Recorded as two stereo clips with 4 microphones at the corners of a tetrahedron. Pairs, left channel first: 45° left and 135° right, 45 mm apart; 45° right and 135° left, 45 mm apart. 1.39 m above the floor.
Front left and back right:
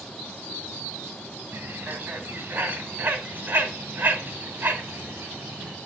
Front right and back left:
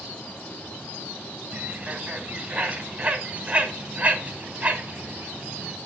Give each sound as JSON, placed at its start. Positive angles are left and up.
{"t": 1.5, "sound": "a bird", "azimuth_deg": -170, "distance_m": 2.5}